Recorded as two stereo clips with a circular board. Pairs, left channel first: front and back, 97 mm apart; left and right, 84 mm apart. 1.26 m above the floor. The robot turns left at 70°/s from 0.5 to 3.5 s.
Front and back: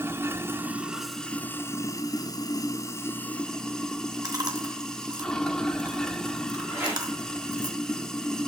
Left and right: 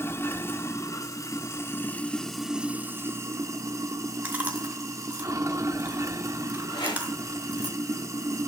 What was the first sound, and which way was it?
Running water, 130° left.